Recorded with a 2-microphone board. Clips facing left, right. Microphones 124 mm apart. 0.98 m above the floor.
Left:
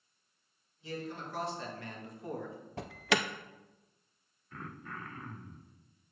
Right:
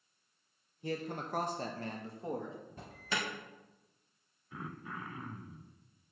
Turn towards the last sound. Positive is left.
turn(degrees=-10)  # may be behind; listen again after turning